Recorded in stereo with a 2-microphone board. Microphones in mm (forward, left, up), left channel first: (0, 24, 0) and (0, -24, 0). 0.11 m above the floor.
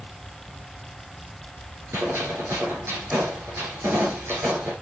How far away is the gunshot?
About 5 m.